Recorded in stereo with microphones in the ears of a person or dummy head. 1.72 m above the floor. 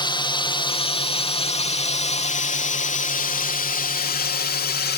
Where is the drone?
25° left (ahead or behind); by 5.0 s 50° left (ahead or behind).